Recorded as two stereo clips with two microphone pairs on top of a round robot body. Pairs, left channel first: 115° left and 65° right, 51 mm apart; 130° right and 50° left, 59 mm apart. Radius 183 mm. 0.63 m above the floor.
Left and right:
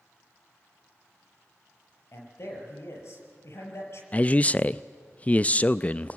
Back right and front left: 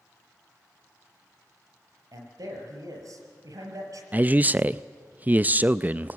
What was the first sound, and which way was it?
A man speaking, 75° left.